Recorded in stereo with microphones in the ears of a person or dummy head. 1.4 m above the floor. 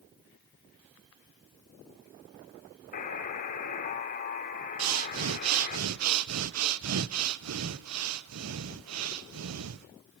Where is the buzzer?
45° left (ahead or behind), 3 m.